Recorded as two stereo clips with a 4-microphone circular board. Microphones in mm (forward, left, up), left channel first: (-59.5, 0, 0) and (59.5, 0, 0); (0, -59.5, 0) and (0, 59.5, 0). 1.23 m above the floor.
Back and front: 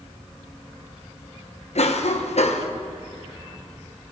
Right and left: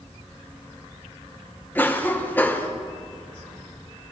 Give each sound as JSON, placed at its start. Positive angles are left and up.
{"t": 1.8, "sound": "a cough", "azimuth_deg": -165, "distance_m": 0.9}